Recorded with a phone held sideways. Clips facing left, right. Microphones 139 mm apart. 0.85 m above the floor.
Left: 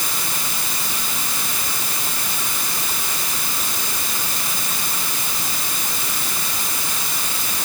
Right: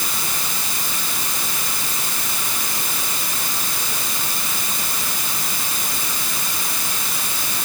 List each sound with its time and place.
Only background noise.